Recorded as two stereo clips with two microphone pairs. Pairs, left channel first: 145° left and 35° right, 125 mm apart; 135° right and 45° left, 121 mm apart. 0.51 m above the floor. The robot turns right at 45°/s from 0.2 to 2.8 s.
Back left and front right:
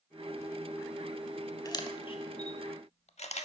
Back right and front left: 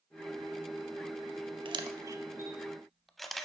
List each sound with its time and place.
1.6 s a camera shutter: 90° left, 0.6 m; by 3.5 s 140° left, 0.6 m